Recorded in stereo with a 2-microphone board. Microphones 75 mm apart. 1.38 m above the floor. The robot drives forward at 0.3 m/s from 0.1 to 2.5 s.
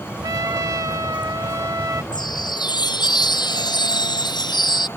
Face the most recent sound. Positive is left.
turn(degrees=75)  # may be behind; listen again after turning